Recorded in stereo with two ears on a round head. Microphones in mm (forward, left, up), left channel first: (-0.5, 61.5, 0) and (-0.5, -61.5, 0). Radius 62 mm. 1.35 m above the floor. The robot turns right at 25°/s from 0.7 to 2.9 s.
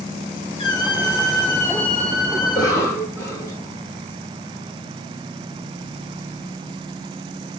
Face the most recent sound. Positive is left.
turn(degrees=20)  # may be behind; listen again after turning